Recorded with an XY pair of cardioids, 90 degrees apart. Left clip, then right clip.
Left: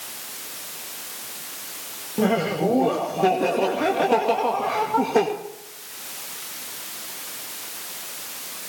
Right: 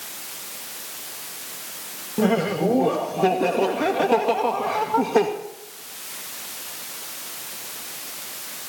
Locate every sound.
2.2 s laughter: 5° right, 2.5 m